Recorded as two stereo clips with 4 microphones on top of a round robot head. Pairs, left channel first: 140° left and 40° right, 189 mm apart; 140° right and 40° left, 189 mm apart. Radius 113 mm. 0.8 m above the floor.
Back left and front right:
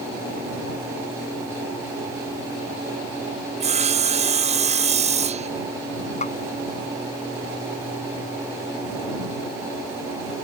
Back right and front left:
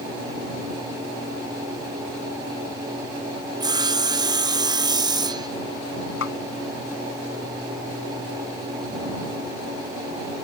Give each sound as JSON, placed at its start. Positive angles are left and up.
{"t": 3.6, "sound": "sawing", "azimuth_deg": -15}
{"t": 6.2, "sound": "a snare drum", "azimuth_deg": -165}